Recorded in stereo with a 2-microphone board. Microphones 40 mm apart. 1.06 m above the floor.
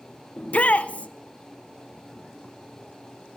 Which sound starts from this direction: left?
A shout, at 0.4 s.